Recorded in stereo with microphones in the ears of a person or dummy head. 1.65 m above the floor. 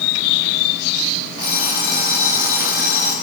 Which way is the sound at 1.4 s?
20° right (ahead or behind).